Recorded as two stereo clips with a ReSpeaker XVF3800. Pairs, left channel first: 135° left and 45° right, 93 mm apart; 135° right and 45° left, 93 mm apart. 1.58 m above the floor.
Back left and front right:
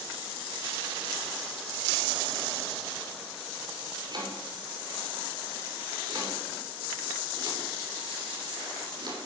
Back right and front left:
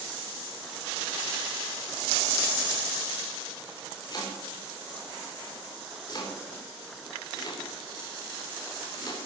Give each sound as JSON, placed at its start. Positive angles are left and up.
{"t": 4.1, "sound": "chopping", "azimuth_deg": -85, "distance_m": 3.5}